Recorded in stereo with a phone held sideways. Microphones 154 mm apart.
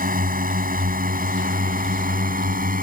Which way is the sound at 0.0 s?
70° right (ahead or behind).